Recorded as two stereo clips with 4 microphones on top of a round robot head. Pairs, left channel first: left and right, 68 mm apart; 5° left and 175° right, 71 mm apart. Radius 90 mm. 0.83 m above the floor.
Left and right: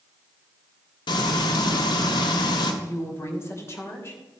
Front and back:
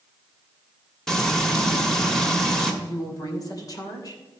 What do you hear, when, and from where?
1.1 s frying: 90° left, 1.7 m
2.8 s a woman speaking: 40° left, 3 m